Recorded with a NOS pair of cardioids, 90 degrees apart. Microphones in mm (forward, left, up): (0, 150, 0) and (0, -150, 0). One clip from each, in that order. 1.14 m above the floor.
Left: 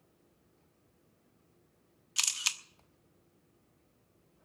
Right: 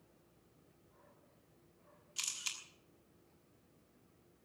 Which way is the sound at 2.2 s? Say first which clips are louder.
Left 10 dB; 65° left.